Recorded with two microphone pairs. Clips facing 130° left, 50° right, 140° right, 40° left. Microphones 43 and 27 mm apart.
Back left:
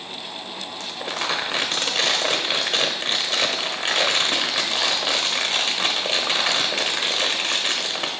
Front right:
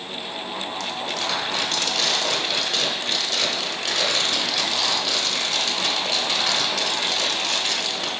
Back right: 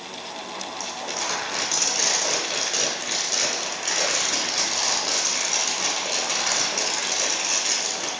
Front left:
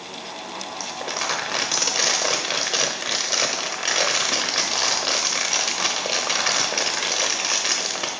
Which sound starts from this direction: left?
Crumpling, at 0.8 s.